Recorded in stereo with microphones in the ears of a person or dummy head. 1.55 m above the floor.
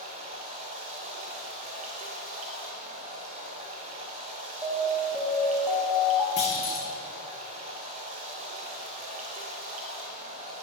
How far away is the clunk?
About 1.6 m.